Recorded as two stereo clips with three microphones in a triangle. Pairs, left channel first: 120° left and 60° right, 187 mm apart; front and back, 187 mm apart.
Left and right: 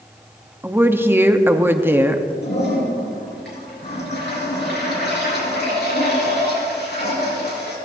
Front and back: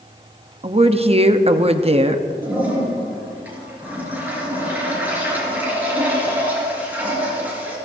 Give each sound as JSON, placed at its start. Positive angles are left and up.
{"t": 0.6, "sound": "a woman speaking", "azimuth_deg": -135, "distance_m": 0.8}
{"t": 2.4, "sound": "a toilet flushing", "azimuth_deg": 100, "distance_m": 4.5}